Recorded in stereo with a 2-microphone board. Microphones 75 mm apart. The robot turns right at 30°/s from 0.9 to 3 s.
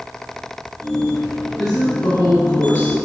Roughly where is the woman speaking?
Left.